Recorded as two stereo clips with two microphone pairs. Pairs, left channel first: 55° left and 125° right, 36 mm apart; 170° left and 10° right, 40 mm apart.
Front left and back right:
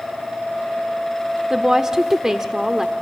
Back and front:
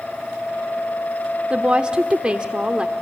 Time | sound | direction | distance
1.5 | a woman speaking | 60° right | 1.2 m